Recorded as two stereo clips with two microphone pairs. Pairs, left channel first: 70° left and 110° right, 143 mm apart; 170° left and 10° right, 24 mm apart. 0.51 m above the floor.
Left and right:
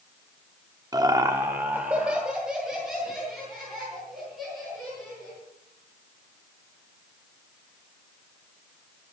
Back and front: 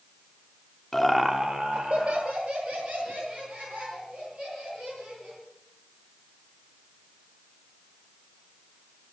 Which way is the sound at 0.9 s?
140° right.